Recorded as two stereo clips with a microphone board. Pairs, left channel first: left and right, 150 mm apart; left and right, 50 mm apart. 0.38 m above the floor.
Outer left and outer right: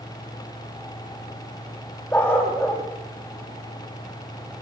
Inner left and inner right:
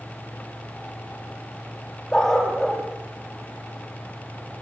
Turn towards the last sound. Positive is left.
turn(degrees=10)  # may be behind; listen again after turning